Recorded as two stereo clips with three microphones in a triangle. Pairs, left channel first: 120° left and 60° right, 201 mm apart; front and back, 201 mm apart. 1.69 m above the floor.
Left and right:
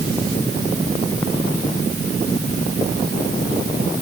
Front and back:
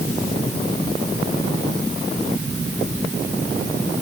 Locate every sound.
Only background noise.